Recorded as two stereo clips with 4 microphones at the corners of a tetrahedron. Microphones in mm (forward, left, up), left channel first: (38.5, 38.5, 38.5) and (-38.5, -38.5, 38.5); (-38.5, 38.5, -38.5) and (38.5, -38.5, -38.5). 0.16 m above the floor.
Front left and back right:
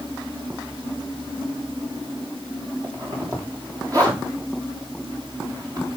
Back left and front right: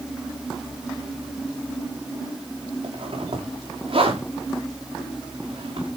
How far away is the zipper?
About 6 m.